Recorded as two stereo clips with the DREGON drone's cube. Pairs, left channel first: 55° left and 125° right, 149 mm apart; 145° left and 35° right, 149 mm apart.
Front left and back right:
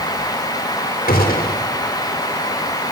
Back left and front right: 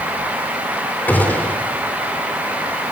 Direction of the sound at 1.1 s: 65° left.